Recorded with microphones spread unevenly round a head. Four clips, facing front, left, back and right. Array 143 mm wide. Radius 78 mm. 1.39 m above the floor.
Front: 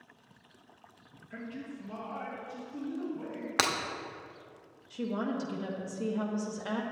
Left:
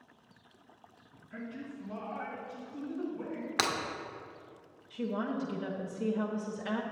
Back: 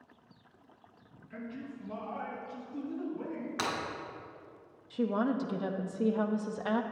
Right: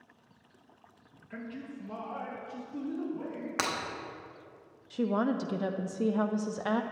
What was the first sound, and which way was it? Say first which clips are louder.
A man speaking: right 1 dB, front 1 dB; 75° right.